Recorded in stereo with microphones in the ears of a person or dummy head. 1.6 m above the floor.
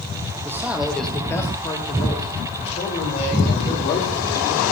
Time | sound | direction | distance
0.5 | a man speaking | 15° right (ahead or behind) | 0.8 m